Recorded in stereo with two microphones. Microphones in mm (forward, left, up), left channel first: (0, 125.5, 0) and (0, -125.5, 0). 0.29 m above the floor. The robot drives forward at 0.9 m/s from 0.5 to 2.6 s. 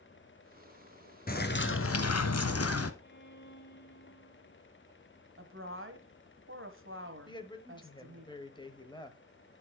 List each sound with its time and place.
1.3 s a bird: 35° left (ahead or behind), 1.1 m; by 2.9 s 65° left (ahead or behind), 0.7 m
3.0 s a violin: 45° left (ahead or behind), 1.0 m
5.4 s a woman speaking: 55° right (ahead or behind), 1.4 m
7.3 s a woman speaking: 20° left (ahead or behind), 1.2 m